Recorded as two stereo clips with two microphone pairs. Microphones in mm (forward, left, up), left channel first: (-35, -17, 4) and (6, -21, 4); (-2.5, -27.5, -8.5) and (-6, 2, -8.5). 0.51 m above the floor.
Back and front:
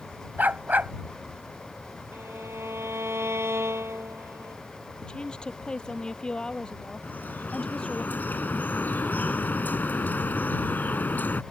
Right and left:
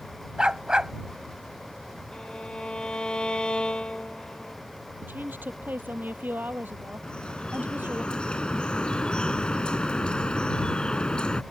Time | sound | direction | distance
0.4 | a dog barking | 35° left | ?
2.1 | a violin | 20° right | ?
5.0 | a woman speaking | 100° left | ?
7.0 | dripping | 145° right | ?